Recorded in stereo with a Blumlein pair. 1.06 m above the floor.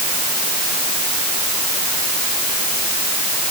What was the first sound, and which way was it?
Only background noise.